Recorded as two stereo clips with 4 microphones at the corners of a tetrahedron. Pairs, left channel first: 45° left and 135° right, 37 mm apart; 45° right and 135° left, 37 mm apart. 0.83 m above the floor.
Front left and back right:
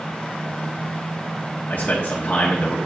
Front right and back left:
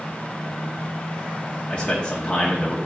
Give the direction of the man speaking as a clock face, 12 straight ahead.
12 o'clock.